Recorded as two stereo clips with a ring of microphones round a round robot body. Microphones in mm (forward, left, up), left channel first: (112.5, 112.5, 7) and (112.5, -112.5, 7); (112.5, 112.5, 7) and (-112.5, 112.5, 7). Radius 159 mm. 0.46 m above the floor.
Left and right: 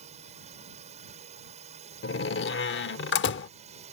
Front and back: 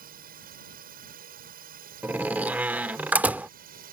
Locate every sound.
0.0 s a drone: 145° right
2.0 s a door slam: 100° left